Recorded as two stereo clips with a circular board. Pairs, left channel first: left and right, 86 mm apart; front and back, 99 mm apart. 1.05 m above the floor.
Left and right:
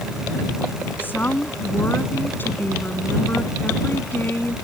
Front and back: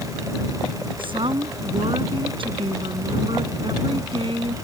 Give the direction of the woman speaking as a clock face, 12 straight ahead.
7 o'clock.